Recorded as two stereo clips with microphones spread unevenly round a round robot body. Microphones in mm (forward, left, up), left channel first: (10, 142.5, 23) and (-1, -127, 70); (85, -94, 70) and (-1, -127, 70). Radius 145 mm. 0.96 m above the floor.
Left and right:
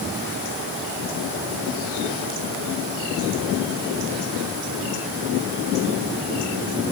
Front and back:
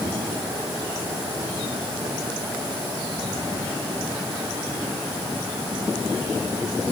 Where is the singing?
No singing in this recording.